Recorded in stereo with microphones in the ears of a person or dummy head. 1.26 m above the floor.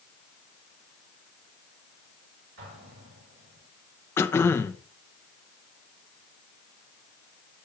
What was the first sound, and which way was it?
An explosion, 75° right (ahead or behind).